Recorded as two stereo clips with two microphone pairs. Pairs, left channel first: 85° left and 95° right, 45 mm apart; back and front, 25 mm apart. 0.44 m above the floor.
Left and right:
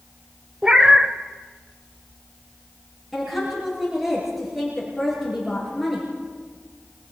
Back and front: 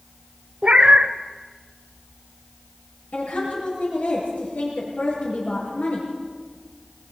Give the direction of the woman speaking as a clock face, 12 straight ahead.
6 o'clock.